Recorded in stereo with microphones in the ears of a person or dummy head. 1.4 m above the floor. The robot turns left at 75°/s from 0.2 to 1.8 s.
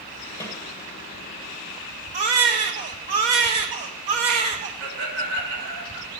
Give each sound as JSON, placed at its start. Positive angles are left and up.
{"t": 0.4, "sound": "a snare drum", "side_deg": 15, "distance_m": 2.0}
{"t": 2.1, "sound": "a baby crying", "side_deg": -25, "distance_m": 0.7}
{"t": 4.8, "sound": "laughter", "side_deg": -80, "distance_m": 4.0}